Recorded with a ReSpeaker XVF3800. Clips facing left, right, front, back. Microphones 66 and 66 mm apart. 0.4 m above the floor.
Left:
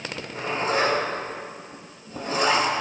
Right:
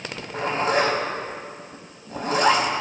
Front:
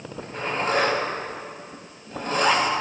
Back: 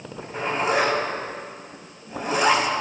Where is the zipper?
100° right, 2.5 m.